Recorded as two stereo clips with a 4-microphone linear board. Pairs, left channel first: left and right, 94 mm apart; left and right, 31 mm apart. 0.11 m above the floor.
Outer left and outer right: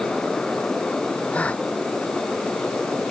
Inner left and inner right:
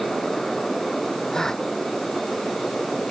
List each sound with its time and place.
1.3 s a gasp: 15° left (ahead or behind)